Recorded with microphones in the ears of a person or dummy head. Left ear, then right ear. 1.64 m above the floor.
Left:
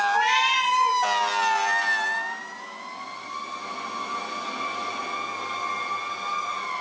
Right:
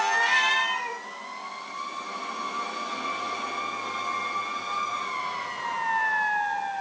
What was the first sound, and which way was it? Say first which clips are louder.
A cat meowing: even; 20° left (ahead or behind).